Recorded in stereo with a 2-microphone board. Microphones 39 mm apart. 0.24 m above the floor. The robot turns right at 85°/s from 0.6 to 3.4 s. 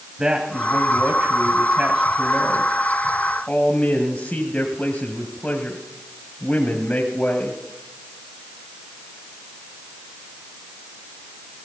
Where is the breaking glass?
No breaking glass in this recording.